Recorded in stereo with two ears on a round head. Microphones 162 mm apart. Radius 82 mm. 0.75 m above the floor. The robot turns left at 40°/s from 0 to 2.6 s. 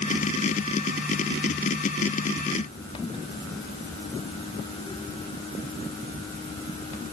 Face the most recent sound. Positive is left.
No sound to turn to.